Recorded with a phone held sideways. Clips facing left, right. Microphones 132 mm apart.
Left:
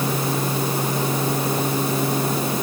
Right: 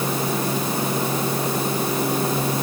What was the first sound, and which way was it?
Only background noise.